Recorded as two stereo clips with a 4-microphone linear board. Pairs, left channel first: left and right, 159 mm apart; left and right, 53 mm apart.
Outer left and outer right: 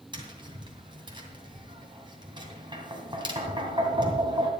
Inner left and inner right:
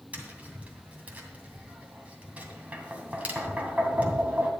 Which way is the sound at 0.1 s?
30° right (ahead or behind).